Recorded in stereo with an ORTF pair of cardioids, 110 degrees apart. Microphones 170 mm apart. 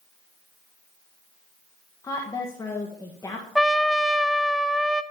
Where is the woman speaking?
20° left, 1.5 m.